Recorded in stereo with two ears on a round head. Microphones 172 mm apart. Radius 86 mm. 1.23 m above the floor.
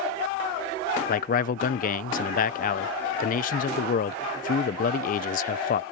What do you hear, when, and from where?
1.1 s a man speaking: 45° left (ahead or behind)